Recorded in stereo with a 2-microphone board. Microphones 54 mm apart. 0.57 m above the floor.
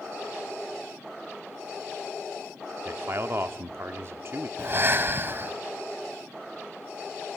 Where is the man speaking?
45° right (ahead or behind), 0.9 m.